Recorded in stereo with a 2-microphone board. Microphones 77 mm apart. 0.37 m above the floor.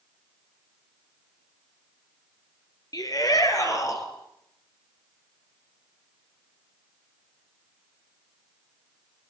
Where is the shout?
55° left (ahead or behind), 7 m; by 4.1 s 45° left (ahead or behind), 7 m.